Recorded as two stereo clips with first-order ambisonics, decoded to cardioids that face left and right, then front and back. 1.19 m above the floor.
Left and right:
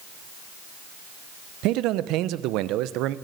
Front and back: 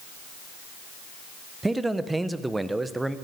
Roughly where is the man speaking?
Right.